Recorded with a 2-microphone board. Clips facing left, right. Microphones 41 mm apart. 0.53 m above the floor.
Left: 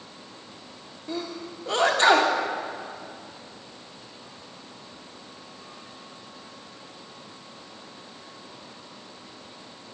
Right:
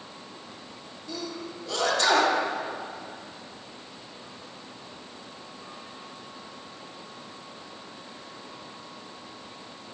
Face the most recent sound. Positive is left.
turn(degrees=35)  # may be behind; listen again after turning